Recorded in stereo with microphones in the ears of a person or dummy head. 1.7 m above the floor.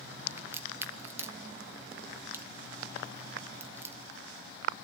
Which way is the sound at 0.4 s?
15° right (ahead or behind).